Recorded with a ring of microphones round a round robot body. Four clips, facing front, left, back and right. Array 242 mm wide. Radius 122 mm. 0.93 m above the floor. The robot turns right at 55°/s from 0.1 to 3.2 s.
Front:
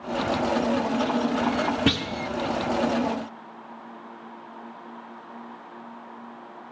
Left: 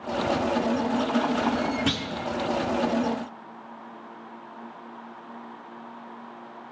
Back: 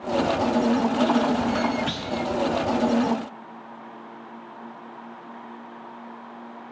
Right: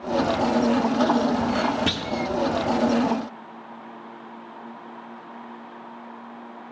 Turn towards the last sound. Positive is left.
turn(degrees=65)